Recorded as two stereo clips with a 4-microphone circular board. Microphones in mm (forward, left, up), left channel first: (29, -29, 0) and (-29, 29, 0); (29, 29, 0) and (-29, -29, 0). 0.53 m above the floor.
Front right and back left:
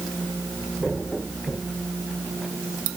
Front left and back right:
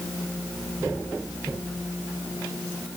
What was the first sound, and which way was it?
Only background noise.